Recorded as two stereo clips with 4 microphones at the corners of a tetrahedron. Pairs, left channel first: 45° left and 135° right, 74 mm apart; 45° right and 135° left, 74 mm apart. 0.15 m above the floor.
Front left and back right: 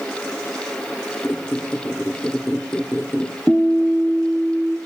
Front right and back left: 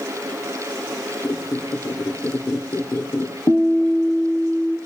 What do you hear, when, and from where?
1.2 s a squeak: 15° right, 1.9 m
3.5 s a guitar: 30° right, 3.5 m